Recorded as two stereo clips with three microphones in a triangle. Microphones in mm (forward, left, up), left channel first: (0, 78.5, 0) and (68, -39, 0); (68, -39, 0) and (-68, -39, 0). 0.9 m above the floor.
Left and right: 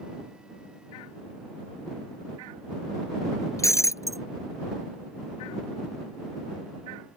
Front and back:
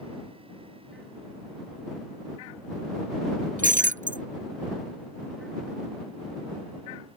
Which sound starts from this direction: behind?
Breaking glass, at 3.6 s.